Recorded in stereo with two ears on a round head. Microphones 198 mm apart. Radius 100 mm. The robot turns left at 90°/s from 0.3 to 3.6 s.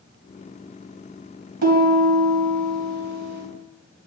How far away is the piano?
About 3 m.